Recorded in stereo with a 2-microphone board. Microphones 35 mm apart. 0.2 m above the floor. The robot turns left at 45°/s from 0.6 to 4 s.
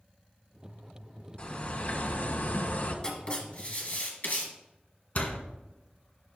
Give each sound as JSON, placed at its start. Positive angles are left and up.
{"t": 1.4, "sound": "a bird", "azimuth_deg": 140, "distance_m": 1.8}
{"t": 3.0, "sound": "writing", "azimuth_deg": 155, "distance_m": 2.5}
{"t": 5.2, "sound": "a door slam", "side_deg": 45, "distance_m": 1.4}